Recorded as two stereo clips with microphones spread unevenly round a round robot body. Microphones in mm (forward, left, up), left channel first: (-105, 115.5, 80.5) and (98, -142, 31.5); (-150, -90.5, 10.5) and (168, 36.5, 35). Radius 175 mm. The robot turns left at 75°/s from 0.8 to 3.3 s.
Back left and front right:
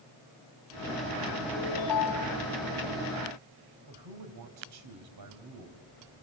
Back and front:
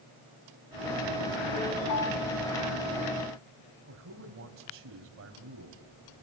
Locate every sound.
1.5 s a ringtone: straight behind, 2 m; by 2.4 s 115° left, 2 m
3.9 s a man speaking: 30° right, 3 m